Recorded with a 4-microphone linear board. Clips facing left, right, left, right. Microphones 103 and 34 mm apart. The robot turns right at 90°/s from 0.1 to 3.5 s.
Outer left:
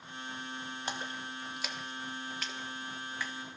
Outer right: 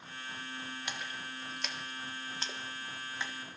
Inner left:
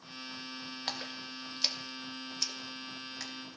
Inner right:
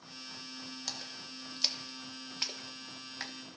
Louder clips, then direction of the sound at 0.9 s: Outer left 3 dB, inner left 7 dB; 35° left (ahead or behind).